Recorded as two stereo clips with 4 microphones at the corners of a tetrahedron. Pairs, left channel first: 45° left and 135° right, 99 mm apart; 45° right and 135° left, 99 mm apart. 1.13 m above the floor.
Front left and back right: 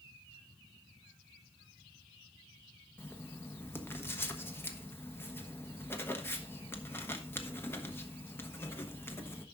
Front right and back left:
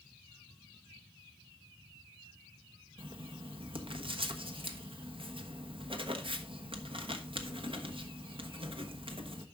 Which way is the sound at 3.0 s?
110° left.